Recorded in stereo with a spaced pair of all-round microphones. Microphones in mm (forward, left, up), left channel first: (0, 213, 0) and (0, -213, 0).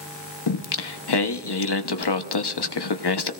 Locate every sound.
0.5 s singing: 65° left (ahead or behind), 0.8 m